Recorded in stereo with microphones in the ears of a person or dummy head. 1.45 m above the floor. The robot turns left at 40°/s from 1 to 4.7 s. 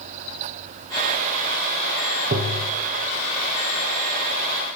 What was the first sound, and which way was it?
Tapping, 50° right (ahead or behind).